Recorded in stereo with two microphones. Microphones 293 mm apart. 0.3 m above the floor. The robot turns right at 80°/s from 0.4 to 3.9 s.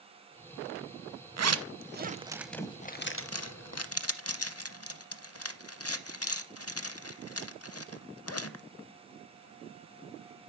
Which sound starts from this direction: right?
A zipper, at 1.4 s.